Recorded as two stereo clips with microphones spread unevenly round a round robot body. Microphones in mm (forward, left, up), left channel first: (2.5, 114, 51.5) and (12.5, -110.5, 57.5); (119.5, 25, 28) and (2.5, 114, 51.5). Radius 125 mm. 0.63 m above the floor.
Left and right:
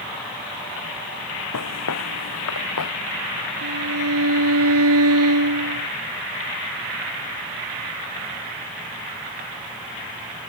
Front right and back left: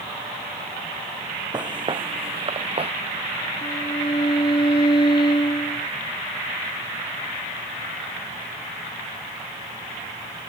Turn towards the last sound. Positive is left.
turn(degrees=-110)